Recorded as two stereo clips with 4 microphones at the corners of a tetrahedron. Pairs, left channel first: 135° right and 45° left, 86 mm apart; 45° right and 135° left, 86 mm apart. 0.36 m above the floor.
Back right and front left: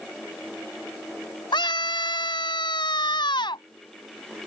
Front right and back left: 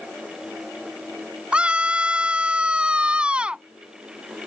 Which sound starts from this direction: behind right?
A scream, at 1.5 s.